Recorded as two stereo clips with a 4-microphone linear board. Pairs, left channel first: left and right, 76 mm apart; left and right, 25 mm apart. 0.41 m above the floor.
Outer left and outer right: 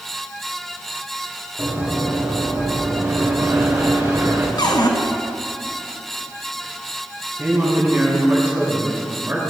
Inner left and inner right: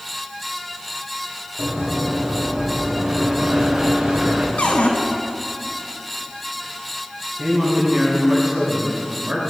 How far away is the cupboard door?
About 2.0 m.